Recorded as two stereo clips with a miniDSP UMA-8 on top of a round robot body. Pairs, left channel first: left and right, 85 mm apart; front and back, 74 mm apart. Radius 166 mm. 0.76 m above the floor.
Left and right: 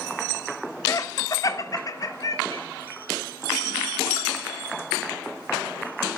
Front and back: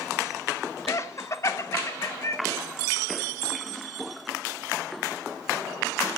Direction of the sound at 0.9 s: 45° left.